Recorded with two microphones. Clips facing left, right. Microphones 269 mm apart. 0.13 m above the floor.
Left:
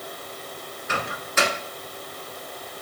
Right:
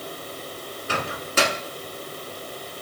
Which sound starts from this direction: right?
A microwave, at 0.9 s.